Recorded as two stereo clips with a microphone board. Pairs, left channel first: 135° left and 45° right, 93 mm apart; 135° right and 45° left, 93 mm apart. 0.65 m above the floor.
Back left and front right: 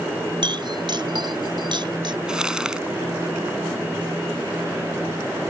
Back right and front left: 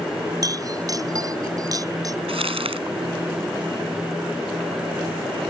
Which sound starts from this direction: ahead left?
Crumpling, at 2.3 s.